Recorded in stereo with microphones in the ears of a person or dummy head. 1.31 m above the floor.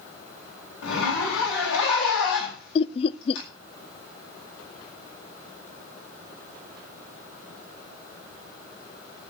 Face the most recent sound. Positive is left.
turn(degrees=30)  # may be behind; listen again after turning